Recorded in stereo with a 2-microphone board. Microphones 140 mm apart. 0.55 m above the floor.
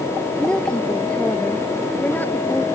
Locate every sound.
0.4 s a woman speaking: 5° left (ahead or behind); by 2.6 s 15° left (ahead or behind)